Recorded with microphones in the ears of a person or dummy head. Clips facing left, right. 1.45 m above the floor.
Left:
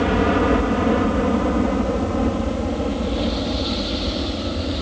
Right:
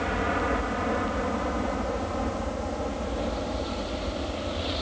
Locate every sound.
0.0 s a helicopter: 60° left (ahead or behind); by 4.8 s 35° left (ahead or behind)